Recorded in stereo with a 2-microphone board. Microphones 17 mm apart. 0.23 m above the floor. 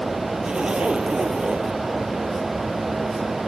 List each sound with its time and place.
0.4 s a zipper: 60° right (ahead or behind)